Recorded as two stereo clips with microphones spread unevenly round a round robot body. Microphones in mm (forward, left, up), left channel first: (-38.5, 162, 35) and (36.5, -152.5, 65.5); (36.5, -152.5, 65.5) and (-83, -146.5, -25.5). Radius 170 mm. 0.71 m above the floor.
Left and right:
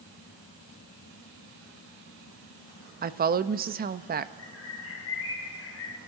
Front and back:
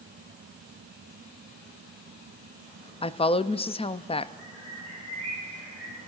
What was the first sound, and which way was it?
A woman speaking, 95° right.